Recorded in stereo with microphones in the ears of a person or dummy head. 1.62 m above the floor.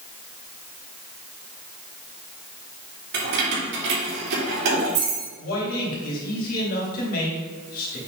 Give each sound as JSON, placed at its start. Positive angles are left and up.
{"t": 3.1, "sound": "keys jangling", "side_deg": -65, "distance_m": 3.0}
{"t": 5.4, "sound": "a man speaking", "side_deg": 50, "distance_m": 3.0}